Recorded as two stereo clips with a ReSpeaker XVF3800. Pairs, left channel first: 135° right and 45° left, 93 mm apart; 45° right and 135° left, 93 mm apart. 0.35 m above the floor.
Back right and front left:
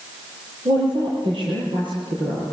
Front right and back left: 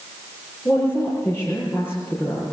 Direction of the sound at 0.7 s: 20° left.